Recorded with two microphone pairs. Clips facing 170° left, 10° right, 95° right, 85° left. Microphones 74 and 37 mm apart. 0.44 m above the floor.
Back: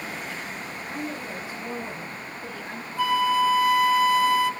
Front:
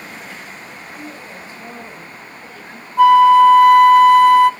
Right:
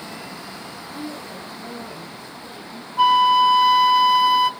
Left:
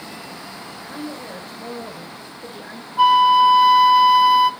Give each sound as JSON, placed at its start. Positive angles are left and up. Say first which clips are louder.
{"t": 0.8, "sound": "a woman speaking", "louder": "back 3 dB, left 2 dB", "azimuth_deg": 90, "distance_m": 6.0}
{"t": 3.0, "sound": "a flute", "louder": "front 14 dB, left 2 dB", "azimuth_deg": 0, "distance_m": 0.7}